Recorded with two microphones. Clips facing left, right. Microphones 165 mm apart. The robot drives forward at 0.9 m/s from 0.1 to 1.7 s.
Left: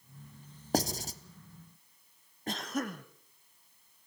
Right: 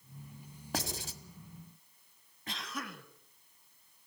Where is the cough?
50° left (ahead or behind), 1.7 m.